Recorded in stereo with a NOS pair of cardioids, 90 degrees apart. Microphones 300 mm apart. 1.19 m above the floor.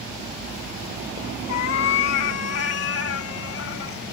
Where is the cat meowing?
60° left; by 4.0 s 45° left.